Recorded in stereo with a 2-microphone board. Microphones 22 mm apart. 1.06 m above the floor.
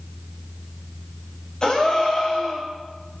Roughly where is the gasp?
Left.